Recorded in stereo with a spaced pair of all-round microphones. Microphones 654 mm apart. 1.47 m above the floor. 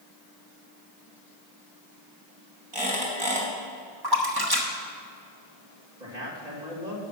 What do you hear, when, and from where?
2.7 s a squeak: 45° right (ahead or behind), 3 m
4.0 s a splash: 35° right (ahead or behind), 1.4 m
6.0 s a man speaking: 80° right, 2.5 m